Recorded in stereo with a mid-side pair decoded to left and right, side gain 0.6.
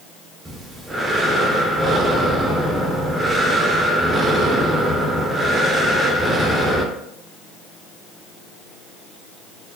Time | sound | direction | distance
0.5 | breathing | 15° right | 0.7 m